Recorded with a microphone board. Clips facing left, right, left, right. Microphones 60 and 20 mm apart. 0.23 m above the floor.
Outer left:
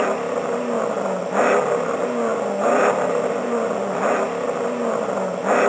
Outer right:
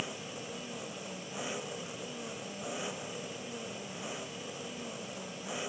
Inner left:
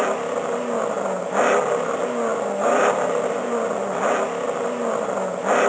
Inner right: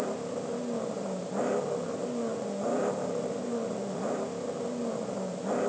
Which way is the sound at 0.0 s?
70° left (ahead or behind).